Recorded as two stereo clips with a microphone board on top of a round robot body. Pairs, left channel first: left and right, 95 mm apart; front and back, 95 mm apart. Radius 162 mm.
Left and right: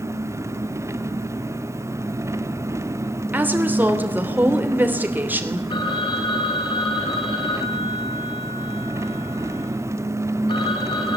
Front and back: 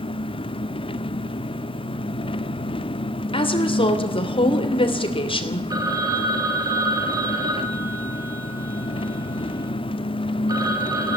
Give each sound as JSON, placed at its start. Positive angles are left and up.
{"t": 0.0, "sound": "an engine running", "azimuth_deg": -30, "distance_m": 0.7}
{"t": 3.3, "sound": "a woman speaking", "azimuth_deg": -20, "distance_m": 3.0}
{"t": 5.7, "sound": "a phone ringing", "azimuth_deg": 130, "distance_m": 3.5}